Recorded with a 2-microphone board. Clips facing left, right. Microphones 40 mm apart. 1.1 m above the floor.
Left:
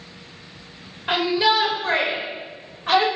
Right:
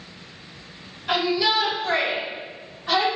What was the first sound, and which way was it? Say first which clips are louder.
A shout: left 2 dB; 35° left (ahead or behind).